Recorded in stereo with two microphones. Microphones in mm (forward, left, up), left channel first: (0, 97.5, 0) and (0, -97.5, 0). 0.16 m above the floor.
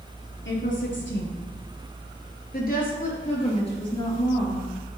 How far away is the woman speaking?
About 3.5 m.